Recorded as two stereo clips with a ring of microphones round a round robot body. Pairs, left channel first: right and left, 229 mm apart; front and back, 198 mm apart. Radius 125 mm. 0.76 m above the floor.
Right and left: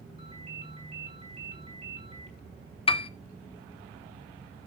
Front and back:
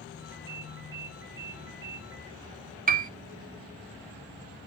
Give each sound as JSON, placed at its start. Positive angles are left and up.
{"t": 0.2, "sound": "a ringtone", "azimuth_deg": 160, "distance_m": 3.5}
{"t": 2.9, "sound": "a piano", "azimuth_deg": -150, "distance_m": 0.9}